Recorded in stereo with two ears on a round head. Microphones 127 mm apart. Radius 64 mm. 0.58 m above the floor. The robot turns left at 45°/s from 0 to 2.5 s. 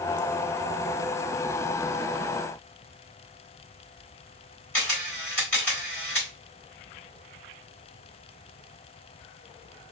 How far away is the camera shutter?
About 1.7 m.